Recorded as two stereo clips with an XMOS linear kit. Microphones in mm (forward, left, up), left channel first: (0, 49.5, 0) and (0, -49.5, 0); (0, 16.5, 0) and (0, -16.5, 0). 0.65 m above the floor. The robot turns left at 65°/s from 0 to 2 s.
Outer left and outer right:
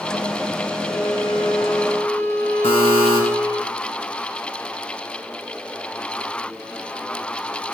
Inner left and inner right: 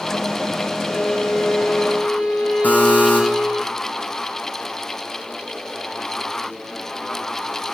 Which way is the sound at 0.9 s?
45° left.